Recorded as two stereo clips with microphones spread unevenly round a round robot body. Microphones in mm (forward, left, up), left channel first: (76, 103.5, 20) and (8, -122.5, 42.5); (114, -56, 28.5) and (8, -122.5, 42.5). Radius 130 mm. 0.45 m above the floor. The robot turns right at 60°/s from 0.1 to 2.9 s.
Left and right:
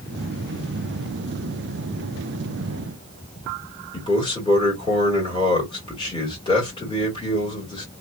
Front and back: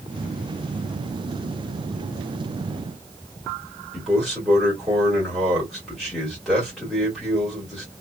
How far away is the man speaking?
About 1.4 m.